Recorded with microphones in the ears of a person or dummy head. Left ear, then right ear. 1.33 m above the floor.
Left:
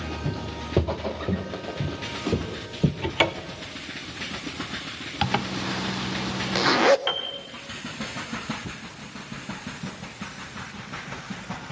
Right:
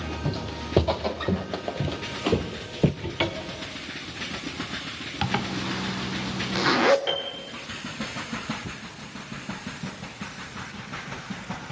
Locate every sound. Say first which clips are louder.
0.2 s footsteps: right 1 dB; 35° right (ahead or behind), 2.5 m
3.0 s a cupboard door: left 4 dB; 35° left (ahead or behind), 0.7 m
5.2 s a zipper: left 2 dB; 15° left (ahead or behind), 0.6 m
7.1 s a piano: left 1 dB; 15° left (ahead or behind), 1.0 m